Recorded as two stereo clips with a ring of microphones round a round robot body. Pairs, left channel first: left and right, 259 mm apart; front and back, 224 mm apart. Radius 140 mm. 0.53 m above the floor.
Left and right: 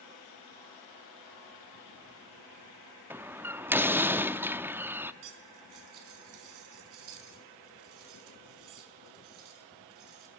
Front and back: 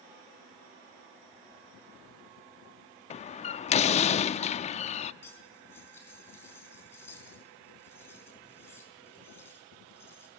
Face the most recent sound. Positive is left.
turn(degrees=-80)